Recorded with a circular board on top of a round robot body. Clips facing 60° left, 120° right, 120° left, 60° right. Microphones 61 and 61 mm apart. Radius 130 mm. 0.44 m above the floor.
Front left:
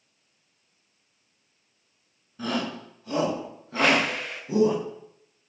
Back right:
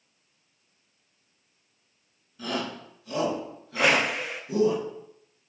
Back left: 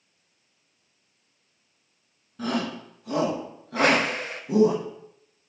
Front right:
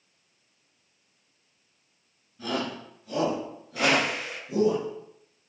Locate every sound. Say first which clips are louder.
2.4 s a shout: front left 2 dB, back left 3 dB; 115° left, 7.5 m; by 4.8 s 125° left, 5 m
3.8 s a whoosh: front left 1 dB, back left 3 dB; 160° left, 1.8 m